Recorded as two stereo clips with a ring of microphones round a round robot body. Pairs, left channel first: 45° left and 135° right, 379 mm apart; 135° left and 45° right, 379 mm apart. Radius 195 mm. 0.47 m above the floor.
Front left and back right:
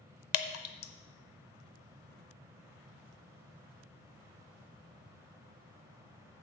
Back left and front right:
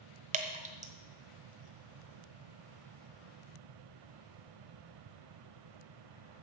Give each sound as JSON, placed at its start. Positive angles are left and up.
{"t": 0.3, "sound": "dripping", "azimuth_deg": 25, "distance_m": 0.9}